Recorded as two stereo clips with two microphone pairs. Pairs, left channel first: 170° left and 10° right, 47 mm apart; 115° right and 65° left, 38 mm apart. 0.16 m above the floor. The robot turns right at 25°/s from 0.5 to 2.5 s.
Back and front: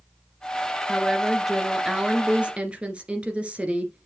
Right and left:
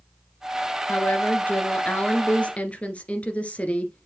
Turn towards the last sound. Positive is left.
turn(degrees=-70)